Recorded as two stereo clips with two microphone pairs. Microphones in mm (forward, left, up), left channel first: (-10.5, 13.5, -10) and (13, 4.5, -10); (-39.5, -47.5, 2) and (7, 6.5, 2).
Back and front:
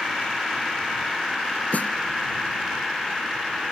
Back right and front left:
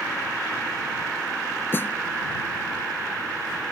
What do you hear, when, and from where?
1.7 s a snare drum: 170° left